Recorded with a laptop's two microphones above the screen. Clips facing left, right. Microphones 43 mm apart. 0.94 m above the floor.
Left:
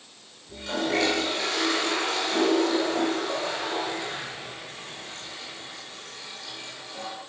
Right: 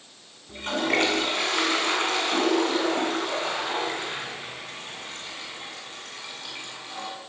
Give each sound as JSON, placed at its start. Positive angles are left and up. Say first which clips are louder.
{"t": 0.5, "sound": "a toilet flushing", "louder": "right 2 dB", "side_deg": -55, "distance_m": 7.0}